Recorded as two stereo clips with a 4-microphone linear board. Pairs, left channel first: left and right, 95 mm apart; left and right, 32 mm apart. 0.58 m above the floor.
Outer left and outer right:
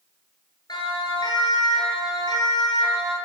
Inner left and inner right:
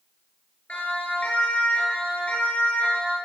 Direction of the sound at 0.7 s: 45° left (ahead or behind).